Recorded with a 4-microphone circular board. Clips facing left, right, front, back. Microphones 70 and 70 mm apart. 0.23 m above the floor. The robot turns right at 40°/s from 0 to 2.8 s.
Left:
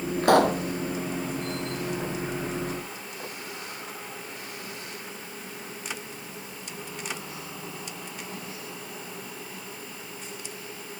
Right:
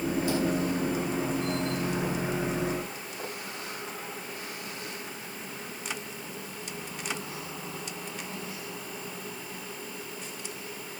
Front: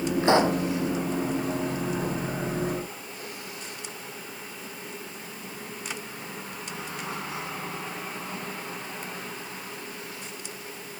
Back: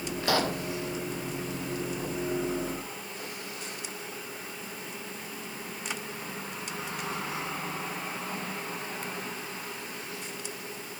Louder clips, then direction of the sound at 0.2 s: Left 12 dB, front 6 dB; 60° left.